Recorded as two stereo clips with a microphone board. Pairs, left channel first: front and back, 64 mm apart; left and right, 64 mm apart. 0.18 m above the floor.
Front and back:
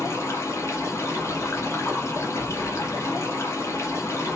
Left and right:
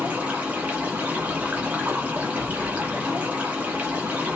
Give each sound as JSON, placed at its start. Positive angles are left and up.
{"t": 0.0, "sound": "running water", "azimuth_deg": -25, "distance_m": 1.3}